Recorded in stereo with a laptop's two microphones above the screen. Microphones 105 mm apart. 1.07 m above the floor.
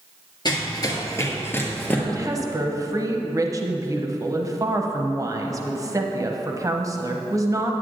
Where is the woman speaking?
30° right (ahead or behind), 0.6 m.